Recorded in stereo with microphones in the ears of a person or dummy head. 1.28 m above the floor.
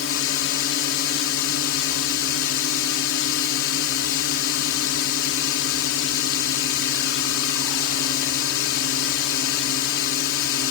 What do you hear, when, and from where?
0.0 s a drone: 70° left (ahead or behind)